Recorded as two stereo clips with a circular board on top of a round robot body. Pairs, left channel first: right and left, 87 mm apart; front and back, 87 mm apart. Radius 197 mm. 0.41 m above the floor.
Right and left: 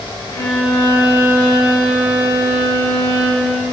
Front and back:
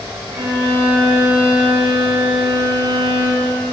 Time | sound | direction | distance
0.3 | a violin | 145° right | 4 m